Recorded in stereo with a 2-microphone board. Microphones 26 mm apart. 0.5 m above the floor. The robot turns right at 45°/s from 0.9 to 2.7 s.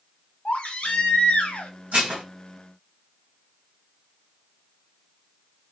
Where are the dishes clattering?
65° right (ahead or behind), 1.6 m; by 2.2 s 50° right (ahead or behind), 1.6 m.